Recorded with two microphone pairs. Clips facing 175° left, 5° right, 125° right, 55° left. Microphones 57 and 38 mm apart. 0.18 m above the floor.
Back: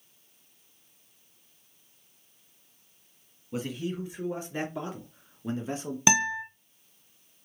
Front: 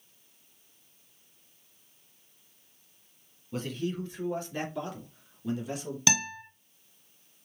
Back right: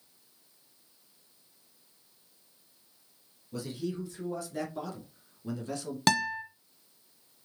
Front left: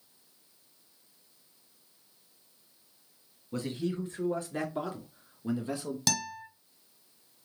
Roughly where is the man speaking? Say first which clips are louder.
Even, front left 2 dB; left.